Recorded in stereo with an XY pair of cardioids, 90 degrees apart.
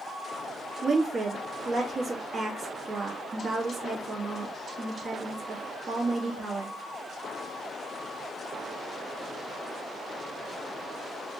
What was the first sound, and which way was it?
A woman speaking, 55° right.